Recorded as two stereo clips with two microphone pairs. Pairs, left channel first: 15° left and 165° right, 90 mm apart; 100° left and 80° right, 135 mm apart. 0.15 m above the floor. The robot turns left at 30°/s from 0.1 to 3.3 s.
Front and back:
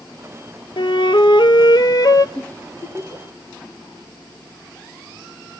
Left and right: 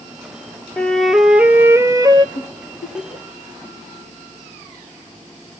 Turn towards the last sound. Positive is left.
turn(degrees=65)